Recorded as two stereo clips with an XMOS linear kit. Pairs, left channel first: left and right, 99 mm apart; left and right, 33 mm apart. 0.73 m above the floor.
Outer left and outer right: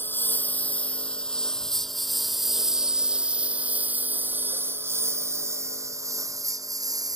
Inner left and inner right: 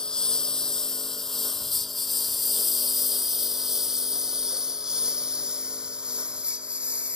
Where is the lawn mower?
20° left (ahead or behind); by 7.2 s 35° right (ahead or behind).